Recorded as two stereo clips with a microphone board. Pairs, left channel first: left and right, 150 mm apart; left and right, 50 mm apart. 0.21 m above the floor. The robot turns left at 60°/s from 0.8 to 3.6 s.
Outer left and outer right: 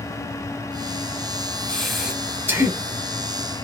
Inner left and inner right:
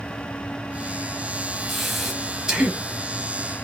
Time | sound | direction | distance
1.7 | breathing | 5° left (ahead or behind) | 0.9 m